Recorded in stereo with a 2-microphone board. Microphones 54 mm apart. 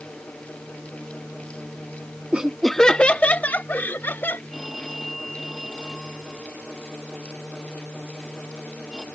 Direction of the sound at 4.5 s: 5° right (ahead or behind).